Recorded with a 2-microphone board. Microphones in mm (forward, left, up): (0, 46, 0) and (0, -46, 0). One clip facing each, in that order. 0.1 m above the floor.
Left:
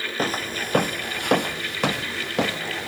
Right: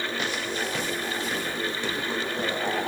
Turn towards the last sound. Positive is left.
turn(degrees=90)